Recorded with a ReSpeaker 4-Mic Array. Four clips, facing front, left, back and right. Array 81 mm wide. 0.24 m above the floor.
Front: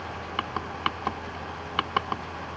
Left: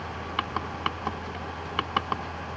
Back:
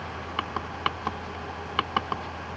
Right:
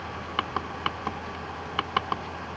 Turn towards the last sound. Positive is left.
No sound to turn to.